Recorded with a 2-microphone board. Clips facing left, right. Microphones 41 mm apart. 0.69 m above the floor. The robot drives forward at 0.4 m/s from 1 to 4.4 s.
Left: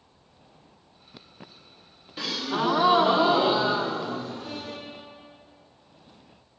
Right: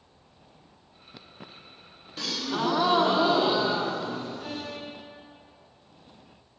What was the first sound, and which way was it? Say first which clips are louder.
A gasp: left 2 dB; 15° left (ahead or behind).